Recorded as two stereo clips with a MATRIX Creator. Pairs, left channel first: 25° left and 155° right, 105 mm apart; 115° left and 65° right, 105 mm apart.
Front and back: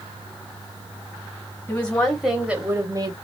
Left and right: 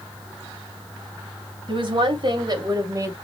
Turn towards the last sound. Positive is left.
turn(degrees=-125)